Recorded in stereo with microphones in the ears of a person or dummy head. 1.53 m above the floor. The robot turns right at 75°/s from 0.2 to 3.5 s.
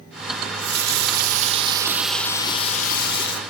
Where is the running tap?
130° right, 1.1 m; by 3.4 s 100° left, 1.1 m.